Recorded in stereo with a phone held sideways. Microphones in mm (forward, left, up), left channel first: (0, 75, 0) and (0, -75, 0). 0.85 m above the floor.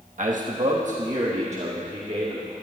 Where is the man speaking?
60° right (ahead or behind), 1.2 m; by 2.5 s 45° right (ahead or behind), 2.5 m.